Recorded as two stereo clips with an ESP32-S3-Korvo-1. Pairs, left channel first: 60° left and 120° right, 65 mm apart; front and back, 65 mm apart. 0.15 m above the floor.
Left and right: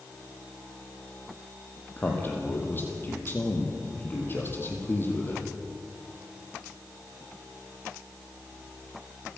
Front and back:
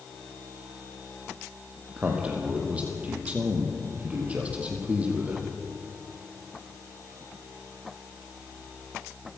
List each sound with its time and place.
2.0 s a man speaking: 115° left, 4.5 m